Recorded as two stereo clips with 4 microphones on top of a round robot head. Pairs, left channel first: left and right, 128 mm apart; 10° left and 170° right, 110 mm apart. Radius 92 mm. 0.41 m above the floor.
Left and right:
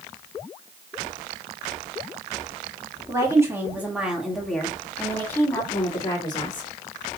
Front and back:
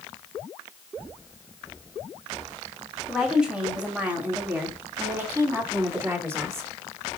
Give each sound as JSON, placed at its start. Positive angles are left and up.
{"t": 3.1, "sound": "a woman speaking", "azimuth_deg": -90, "distance_m": 1.5}